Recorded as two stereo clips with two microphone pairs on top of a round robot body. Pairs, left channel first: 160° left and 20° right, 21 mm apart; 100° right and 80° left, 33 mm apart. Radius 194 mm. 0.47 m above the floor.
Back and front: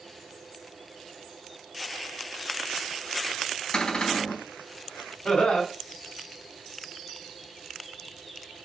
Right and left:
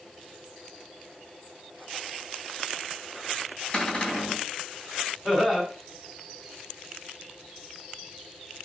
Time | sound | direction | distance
3.7 | a cupboard door | 160° right | 4 m
5.2 | laughter | 170° left | 4 m